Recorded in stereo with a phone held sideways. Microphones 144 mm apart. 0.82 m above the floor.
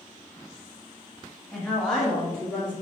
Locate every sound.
1.5 s a woman speaking: 5° left (ahead or behind), 1.0 m